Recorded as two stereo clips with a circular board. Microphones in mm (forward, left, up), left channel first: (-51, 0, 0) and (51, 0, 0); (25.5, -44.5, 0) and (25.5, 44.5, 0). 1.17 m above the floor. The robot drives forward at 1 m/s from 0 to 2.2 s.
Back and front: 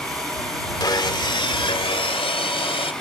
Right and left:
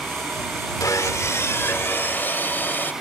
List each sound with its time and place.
0.8 s sawing: 135° right; by 2.9 s 155° right